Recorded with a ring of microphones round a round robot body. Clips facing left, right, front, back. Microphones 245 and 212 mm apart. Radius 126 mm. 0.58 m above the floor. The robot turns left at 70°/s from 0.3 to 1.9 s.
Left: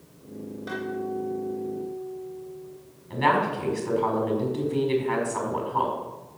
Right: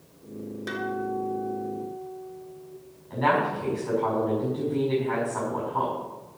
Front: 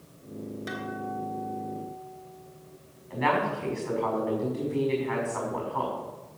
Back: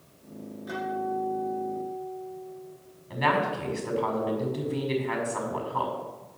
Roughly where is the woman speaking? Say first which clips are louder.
Even, even; behind left.